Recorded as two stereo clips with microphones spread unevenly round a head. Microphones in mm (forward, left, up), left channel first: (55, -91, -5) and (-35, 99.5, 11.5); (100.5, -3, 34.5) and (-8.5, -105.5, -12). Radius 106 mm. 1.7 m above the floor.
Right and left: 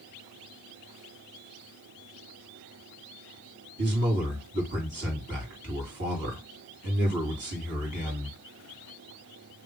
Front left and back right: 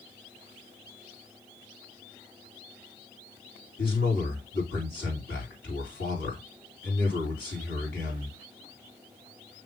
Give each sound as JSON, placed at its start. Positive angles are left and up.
{"t": 3.8, "sound": "a man speaking", "azimuth_deg": 80, "distance_m": 3.0}